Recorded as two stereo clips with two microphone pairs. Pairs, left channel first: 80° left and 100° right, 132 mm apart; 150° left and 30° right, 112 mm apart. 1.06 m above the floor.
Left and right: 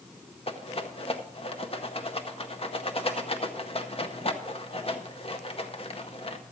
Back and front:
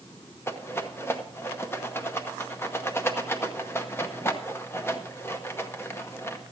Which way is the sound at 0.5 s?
85° left.